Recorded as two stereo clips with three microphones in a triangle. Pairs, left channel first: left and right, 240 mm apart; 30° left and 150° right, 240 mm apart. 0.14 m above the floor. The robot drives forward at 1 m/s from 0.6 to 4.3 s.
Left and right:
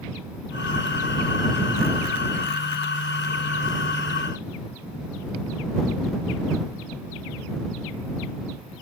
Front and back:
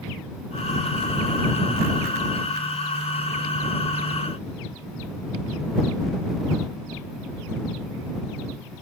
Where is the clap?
No clap in this recording.